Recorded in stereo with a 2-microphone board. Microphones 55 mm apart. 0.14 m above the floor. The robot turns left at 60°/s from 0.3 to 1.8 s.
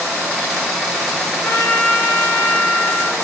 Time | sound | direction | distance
1.4 | a trumpet | 40° left (ahead or behind) | 2 m